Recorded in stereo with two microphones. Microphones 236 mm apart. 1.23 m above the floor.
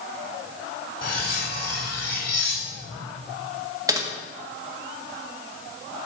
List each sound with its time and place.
1.0 s cutlery clinking: 80° left, 2.5 m
3.9 s typing on a keyboard: 15° right (ahead or behind), 1.9 m